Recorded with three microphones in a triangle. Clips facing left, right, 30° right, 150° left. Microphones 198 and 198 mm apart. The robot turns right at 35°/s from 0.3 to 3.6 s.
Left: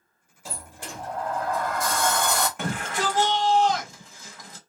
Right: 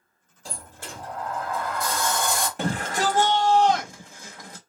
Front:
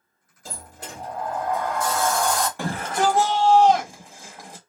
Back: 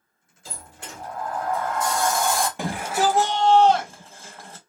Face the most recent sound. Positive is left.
turn(degrees=-105)